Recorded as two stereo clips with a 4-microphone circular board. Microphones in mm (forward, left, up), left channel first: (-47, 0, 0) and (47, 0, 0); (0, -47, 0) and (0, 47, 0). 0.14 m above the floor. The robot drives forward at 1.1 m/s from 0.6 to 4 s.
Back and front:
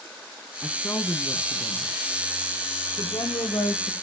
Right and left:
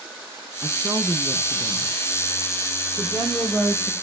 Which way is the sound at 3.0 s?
165° left.